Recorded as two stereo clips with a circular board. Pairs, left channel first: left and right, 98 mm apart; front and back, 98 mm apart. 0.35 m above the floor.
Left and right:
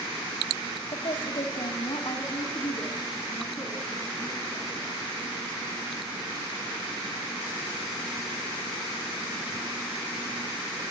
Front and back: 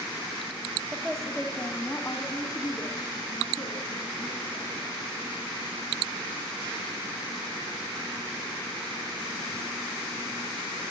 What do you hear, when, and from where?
0.9 s a woman speaking: 100° left, 1.9 m; by 4.9 s 35° left, 5.5 m